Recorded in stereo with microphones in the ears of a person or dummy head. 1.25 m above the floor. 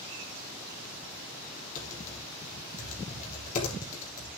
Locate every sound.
1.8 s typing on a keyboard: 40° left (ahead or behind), 3 m